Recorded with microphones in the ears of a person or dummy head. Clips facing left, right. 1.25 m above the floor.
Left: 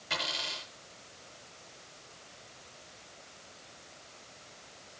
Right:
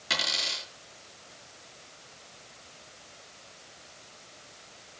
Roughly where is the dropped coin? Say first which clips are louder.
Right 2 dB; right.